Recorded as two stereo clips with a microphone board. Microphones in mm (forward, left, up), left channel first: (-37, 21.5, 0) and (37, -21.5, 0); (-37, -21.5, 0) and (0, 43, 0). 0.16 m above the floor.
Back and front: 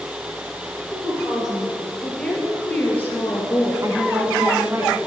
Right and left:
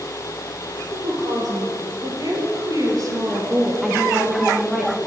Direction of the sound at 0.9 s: 45° left.